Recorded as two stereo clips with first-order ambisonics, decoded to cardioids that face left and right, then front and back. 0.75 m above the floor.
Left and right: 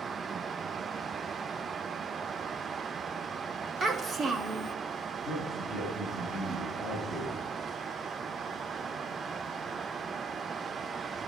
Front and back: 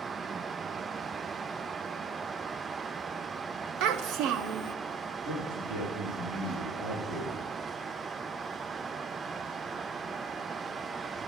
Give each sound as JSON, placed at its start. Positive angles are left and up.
{"t": 3.8, "sound": "a child speaking", "azimuth_deg": -155, "distance_m": 0.8}
{"t": 5.2, "sound": "a man speaking", "azimuth_deg": -155, "distance_m": 8.5}